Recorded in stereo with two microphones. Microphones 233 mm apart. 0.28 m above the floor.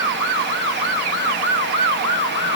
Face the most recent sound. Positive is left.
No sound to turn to.